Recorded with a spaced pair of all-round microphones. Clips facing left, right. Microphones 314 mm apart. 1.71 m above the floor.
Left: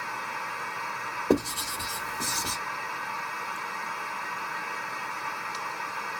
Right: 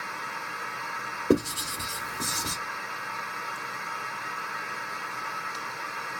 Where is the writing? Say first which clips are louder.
Right 1 dB; 20° right (ahead or behind), 1.6 m.